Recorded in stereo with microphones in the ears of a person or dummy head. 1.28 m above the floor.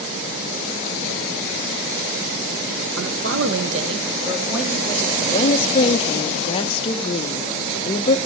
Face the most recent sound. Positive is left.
turn(degrees=30)  # may be behind; listen again after turning